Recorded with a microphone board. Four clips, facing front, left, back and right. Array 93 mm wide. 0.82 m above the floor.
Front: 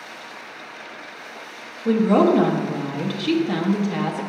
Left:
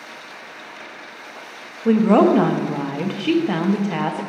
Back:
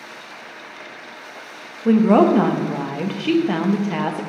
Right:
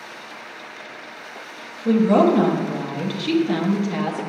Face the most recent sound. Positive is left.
turn(degrees=135)